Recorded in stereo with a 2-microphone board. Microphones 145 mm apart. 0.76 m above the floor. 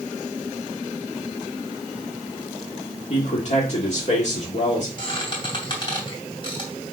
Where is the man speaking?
55° left (ahead or behind), 1.8 m.